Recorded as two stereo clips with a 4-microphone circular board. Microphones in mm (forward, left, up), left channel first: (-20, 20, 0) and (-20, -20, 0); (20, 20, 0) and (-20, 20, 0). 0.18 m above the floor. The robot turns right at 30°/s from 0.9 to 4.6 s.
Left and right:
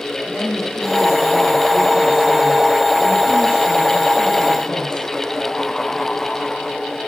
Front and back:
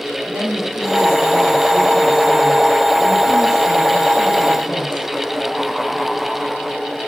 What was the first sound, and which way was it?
A woman speaking, 160° right.